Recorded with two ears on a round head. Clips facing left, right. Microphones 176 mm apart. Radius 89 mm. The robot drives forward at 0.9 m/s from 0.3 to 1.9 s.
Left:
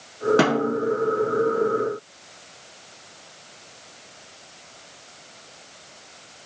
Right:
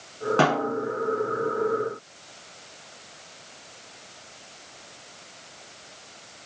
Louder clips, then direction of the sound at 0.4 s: Left 3 dB; 20° left (ahead or behind).